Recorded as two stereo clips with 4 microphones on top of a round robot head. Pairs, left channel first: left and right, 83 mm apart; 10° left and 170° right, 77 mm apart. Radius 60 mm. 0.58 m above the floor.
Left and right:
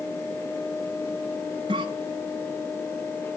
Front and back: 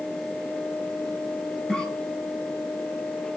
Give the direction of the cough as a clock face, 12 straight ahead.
2 o'clock.